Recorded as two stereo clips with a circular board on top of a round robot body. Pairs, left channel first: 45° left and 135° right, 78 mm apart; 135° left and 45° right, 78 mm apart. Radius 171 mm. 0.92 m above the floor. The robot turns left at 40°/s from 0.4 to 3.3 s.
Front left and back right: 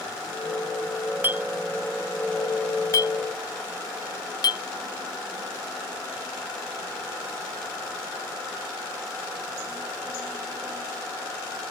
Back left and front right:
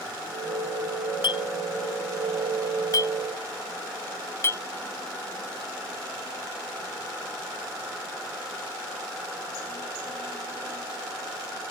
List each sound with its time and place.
1.2 s a clink: 160° left; by 4.6 s 75° left